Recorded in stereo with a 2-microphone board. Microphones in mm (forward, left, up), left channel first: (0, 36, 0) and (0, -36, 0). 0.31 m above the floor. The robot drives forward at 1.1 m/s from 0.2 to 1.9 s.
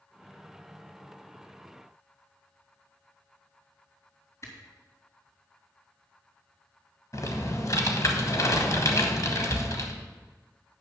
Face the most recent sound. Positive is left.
turn(degrees=50)  # may be behind; listen again after turning